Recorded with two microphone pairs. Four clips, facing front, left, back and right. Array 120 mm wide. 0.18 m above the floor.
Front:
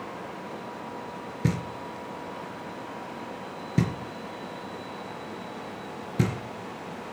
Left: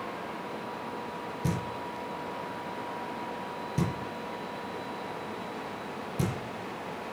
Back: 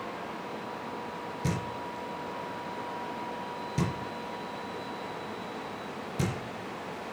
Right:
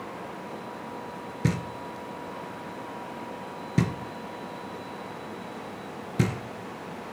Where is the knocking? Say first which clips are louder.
Right 4 dB, front 4 dB; 80° right, 3 m.